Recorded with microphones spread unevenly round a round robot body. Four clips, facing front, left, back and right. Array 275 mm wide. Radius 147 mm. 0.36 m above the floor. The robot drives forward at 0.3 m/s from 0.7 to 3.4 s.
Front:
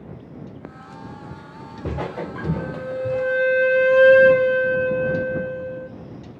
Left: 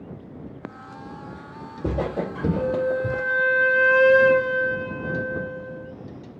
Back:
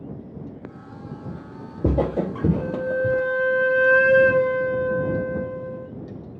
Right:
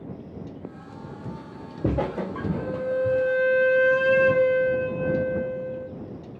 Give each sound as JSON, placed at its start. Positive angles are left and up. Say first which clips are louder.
{"t": 1.2, "sound": "footsteps", "louder": "even, back 1 dB", "azimuth_deg": -145, "distance_m": 1.3}
{"t": 2.6, "sound": "a flute", "louder": "left 2 dB, back 3 dB", "azimuth_deg": 140, "distance_m": 0.7}